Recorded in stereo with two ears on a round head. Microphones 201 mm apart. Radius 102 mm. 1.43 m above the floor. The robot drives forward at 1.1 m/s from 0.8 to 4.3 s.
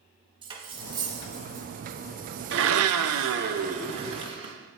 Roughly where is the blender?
Right.